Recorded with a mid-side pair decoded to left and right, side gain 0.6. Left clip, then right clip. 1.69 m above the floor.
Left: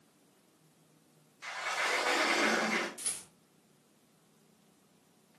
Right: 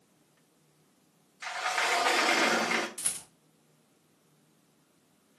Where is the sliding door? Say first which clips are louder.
Right 4 dB; 50° right, 2.5 m.